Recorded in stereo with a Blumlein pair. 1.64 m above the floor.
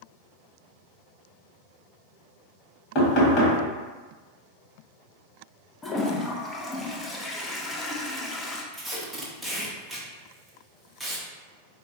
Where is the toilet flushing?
10° left, 0.6 m.